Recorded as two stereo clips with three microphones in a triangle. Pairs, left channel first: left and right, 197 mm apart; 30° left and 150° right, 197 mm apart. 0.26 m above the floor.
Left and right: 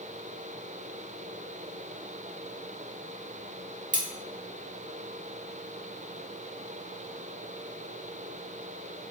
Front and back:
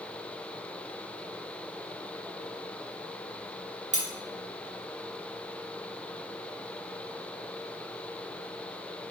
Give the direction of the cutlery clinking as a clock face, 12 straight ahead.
4 o'clock.